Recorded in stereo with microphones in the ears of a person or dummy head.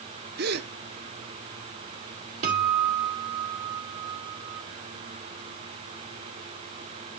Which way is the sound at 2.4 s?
40° right (ahead or behind).